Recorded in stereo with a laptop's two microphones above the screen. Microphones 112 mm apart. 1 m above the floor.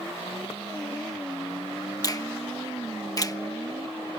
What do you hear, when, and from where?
2.0 s a finger snap: 35° left (ahead or behind)